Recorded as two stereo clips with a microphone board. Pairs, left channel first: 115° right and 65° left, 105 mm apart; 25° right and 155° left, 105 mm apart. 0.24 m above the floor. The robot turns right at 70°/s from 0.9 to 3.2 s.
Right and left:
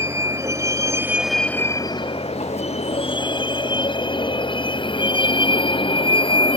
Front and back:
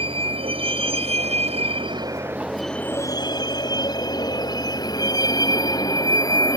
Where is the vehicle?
130° left; by 6.6 s 80° right.